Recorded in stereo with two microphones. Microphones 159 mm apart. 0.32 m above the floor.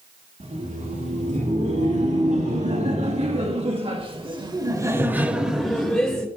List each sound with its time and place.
0.4 s laughter: 55° right (ahead or behind), 3 m; by 6.3 s 20° left (ahead or behind), 1.1 m